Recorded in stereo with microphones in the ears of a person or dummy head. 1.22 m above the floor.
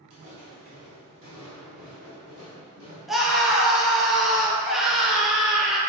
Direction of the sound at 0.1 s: 30° right (ahead or behind).